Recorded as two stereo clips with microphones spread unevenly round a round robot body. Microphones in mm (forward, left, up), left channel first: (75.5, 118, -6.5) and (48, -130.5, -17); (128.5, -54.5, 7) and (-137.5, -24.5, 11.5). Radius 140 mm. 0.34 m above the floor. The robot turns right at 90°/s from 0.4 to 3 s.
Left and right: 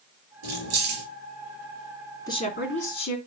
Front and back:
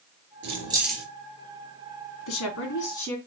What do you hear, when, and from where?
0.4 s keys jangling: 140° right, 3.5 m; by 1.0 s 80° right, 3.5 m
2.3 s a woman speaking: 10° left, 3 m; by 3.2 s 75° left, 3 m